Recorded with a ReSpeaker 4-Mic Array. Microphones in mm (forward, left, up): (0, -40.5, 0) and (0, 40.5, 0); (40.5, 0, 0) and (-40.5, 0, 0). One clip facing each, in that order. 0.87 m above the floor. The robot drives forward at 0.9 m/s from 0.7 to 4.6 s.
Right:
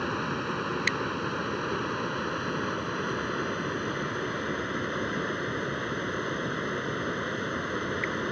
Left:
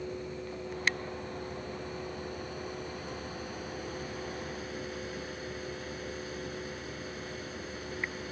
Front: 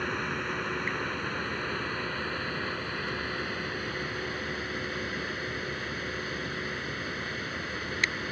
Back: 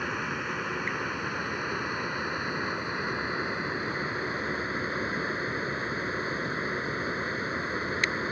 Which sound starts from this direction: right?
Running water, at 0.0 s.